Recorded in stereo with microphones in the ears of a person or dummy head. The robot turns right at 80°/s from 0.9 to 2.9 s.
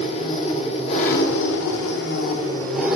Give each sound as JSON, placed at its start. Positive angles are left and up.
{"t": 0.0, "sound": "an engine running", "azimuth_deg": 30, "distance_m": 0.9}